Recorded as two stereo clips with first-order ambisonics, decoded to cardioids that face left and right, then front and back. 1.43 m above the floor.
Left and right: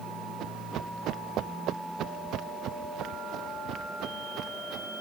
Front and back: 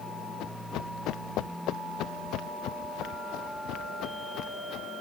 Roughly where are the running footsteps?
Ahead right.